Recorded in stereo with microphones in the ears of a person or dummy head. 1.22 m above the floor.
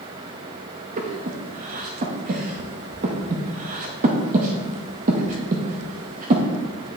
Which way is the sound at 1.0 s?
35° right (ahead or behind).